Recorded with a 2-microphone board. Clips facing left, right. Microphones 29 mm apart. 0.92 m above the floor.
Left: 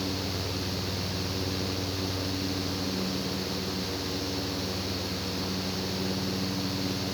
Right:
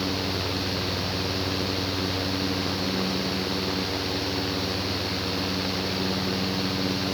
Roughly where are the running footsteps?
I don't hear running footsteps.